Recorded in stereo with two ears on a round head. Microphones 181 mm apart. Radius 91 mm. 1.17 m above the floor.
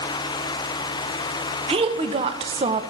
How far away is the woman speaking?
About 0.7 m.